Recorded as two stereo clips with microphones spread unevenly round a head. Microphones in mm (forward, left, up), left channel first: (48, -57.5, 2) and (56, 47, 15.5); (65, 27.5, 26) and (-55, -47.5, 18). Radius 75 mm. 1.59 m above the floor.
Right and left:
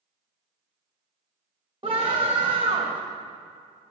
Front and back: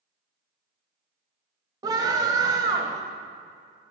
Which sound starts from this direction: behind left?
A scream, at 1.8 s.